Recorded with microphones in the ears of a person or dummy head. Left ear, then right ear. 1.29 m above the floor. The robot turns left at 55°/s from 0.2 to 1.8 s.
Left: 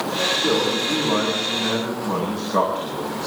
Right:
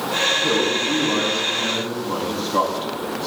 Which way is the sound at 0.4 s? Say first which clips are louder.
Right 1 dB; 125° right.